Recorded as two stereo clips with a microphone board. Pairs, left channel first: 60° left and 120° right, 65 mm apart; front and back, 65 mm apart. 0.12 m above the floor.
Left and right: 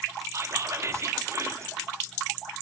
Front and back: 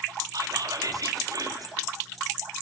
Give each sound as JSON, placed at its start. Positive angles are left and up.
{"t": 0.3, "sound": "whispering", "azimuth_deg": -160, "distance_m": 2.5}